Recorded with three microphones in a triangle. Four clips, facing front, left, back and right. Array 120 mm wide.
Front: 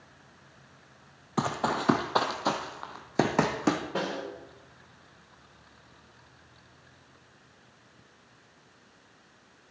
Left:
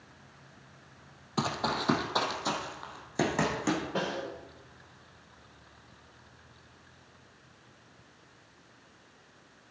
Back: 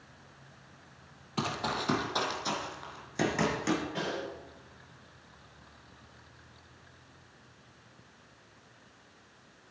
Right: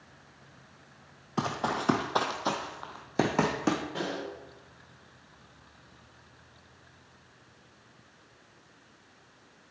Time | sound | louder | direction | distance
1.4 | running footsteps | right 1 dB, front 5 dB | 10° right | 1.1 m
4.0 | a snare drum | left 1 dB, front 3 dB | 25° left | 3.5 m